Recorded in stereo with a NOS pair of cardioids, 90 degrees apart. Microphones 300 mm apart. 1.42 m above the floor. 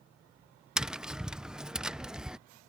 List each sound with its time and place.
0.8 s tapping: straight ahead